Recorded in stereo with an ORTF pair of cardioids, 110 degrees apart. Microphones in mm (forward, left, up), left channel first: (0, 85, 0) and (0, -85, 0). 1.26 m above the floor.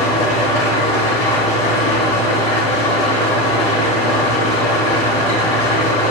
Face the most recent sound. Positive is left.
turn(degrees=40)